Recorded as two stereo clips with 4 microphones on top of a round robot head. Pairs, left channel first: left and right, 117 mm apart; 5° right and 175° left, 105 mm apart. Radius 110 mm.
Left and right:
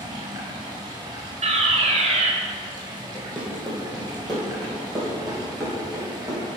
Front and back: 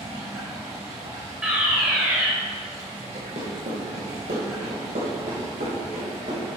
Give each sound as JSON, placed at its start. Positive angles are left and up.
{"t": 0.0, "sound": "running water", "azimuth_deg": -140, "distance_m": 1.7}
{"t": 1.4, "sound": "a fire alarm", "azimuth_deg": -105, "distance_m": 1.5}
{"t": 3.1, "sound": "running footsteps", "azimuth_deg": 175, "distance_m": 2.5}